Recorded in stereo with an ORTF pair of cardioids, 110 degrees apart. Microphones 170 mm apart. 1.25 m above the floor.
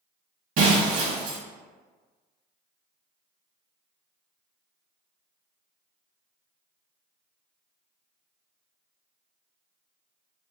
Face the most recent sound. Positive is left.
turn(degrees=-60)